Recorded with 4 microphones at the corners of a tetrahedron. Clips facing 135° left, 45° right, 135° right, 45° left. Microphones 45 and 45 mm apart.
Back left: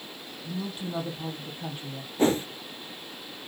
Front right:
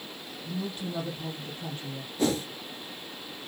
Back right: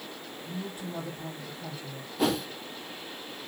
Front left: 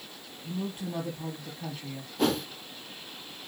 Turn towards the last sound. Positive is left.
turn(degrees=140)